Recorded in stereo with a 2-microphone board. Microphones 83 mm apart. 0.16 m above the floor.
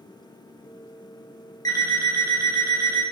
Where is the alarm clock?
45° left (ahead or behind), 0.7 m.